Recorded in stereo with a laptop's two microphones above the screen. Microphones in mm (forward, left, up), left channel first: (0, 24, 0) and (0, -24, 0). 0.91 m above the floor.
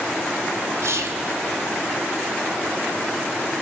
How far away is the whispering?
About 2.5 m.